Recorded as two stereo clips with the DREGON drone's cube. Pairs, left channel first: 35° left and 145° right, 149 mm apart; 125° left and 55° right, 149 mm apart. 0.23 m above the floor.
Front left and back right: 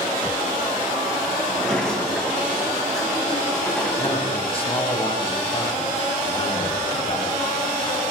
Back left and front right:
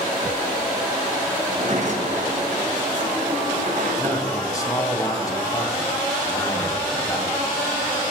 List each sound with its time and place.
1.5 s a sliding door: 50° right, 1.5 m
4.0 s a man speaking: 65° left, 2 m